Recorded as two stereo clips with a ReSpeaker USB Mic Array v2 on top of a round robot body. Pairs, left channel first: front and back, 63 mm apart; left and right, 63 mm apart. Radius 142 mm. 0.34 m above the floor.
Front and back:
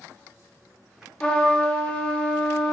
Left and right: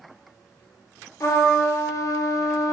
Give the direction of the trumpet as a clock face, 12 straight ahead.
10 o'clock.